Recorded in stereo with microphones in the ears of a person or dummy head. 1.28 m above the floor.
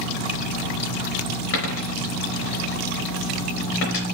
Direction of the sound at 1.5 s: 65° left (ahead or behind).